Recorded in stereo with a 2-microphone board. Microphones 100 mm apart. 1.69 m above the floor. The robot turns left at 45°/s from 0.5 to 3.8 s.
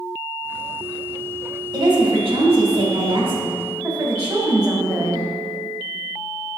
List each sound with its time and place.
1.7 s a woman speaking: 45° right, 2.5 m; by 5.2 s 135° right, 2.5 m